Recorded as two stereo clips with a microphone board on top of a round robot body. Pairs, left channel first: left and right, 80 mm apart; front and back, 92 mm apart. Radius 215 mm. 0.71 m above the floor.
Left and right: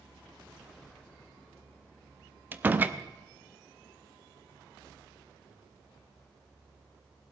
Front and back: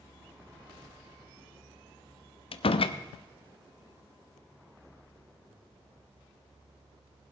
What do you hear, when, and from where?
2.5 s a door slam: 20° right, 0.7 m